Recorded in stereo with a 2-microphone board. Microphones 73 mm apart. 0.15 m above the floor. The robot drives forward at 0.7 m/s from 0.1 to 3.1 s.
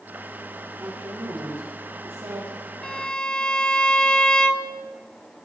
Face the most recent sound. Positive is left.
turn(degrees=10)  # may be behind; listen again after turning